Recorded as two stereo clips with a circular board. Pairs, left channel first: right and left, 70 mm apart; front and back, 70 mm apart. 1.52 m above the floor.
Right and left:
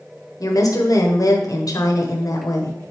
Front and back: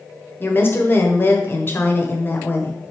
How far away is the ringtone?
No ringtone in this recording.